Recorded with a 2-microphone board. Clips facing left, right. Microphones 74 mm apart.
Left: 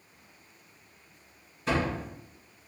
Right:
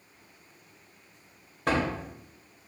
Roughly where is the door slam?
Right.